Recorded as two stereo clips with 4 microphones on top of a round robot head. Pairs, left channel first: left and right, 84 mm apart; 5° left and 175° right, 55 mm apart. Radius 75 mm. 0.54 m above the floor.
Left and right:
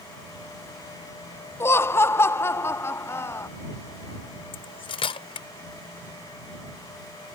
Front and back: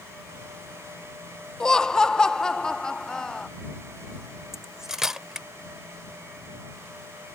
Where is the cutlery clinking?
105° left.